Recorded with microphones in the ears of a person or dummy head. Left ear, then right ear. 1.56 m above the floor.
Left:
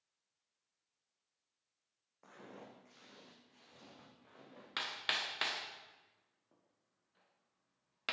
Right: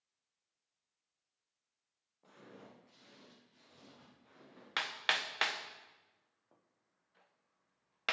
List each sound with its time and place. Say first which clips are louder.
2.2 s footsteps: left 2 dB; 60° left (ahead or behind), 3.5 m; by 4.7 s 10° left (ahead or behind), 4 m
4.8 s hammering: right 3 dB; 20° right (ahead or behind), 0.8 m